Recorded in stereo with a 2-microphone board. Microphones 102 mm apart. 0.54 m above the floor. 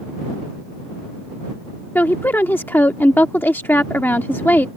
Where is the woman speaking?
20° left (ahead or behind).